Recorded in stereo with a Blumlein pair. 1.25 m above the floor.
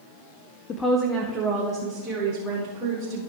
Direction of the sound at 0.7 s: 30° left.